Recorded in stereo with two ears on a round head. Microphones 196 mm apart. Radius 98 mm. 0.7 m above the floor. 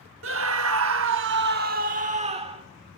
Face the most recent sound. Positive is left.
turn(degrees=-25)  # may be behind; listen again after turning